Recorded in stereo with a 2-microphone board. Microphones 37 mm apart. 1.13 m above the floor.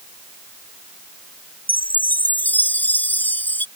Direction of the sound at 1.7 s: 50° left (ahead or behind).